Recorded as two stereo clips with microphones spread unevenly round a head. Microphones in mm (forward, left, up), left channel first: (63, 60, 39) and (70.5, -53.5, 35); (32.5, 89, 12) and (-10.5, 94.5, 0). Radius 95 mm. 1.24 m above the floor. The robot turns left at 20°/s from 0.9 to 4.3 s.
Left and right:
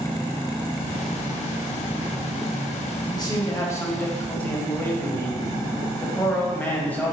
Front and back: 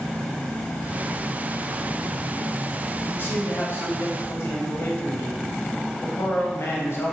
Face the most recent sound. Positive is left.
turn(degrees=20)